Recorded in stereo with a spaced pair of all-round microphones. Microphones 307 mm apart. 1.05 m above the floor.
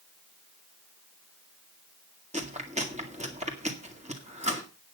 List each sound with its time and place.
2.3 s chewing: 20° right (ahead or behind), 2.0 m